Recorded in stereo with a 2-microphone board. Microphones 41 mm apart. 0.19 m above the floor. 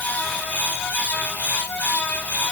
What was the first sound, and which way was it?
Only background noise.